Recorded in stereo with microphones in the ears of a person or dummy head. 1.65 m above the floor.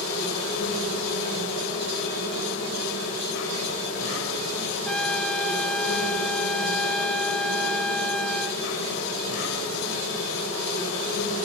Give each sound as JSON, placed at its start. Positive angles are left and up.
{"t": 0.0, "sound": "an insect", "side_deg": 80, "distance_m": 7.0}
{"t": 4.9, "sound": "a trumpet", "side_deg": 5, "distance_m": 0.7}